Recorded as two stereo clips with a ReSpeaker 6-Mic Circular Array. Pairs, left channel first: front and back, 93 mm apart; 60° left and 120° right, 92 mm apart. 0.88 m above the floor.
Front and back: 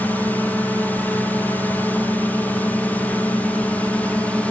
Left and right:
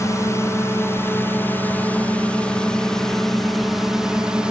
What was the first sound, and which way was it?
A drone, 60° left.